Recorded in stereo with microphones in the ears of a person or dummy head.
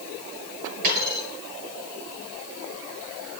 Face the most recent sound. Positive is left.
turn(degrees=-50)  # may be behind; listen again after turning